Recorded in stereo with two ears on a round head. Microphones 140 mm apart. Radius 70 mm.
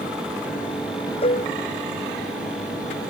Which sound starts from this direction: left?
Dishes clattering, at 1.2 s.